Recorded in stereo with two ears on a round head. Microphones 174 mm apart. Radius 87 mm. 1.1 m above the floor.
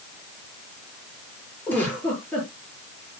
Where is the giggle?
10° left (ahead or behind), 7 m.